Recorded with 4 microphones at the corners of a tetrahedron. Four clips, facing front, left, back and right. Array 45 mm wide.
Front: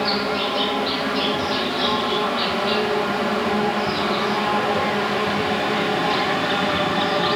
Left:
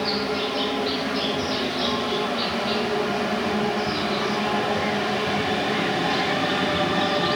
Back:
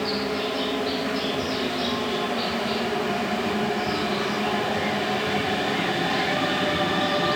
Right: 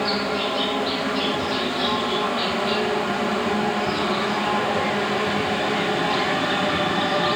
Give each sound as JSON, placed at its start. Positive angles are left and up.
{"t": 0.0, "sound": "an insect", "azimuth_deg": -25, "distance_m": 2.0}